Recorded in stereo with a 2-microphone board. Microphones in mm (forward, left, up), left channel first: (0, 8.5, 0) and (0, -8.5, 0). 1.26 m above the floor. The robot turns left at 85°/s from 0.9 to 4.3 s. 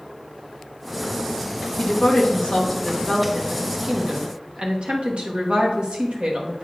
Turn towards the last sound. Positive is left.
turn(degrees=-80)